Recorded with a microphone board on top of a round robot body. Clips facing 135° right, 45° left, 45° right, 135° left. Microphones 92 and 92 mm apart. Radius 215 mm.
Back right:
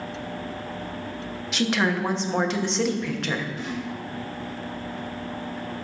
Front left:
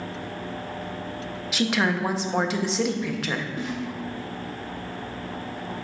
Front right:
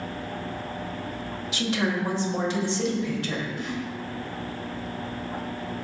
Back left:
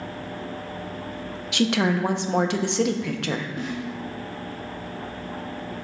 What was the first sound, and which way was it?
A woman speaking, 130° left.